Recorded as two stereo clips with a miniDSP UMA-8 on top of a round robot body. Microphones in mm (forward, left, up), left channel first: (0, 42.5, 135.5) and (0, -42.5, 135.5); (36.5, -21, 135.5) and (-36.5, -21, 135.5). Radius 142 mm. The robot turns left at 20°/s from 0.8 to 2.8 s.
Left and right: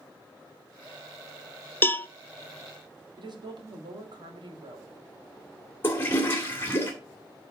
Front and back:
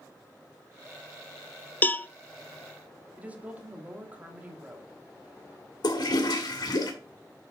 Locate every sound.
1.8 s a cowbell: 45° left, 0.7 m; by 2.1 s 40° left, 0.7 m
3.2 s a woman speaking: 110° right, 2.5 m
5.8 s a toilet flushing: 25° left, 2 m